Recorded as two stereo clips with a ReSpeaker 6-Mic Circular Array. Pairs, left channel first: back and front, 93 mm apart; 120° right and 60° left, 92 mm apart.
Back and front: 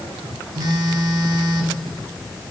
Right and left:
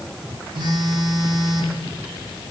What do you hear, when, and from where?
0.6 s a phone buzzing: 35° left, 1.4 m